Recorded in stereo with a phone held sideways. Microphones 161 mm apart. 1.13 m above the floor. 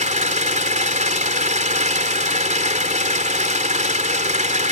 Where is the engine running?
55° right (ahead or behind).